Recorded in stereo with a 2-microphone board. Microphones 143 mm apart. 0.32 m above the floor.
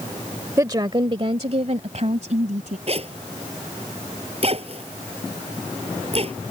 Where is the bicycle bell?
No bicycle bell in this recording.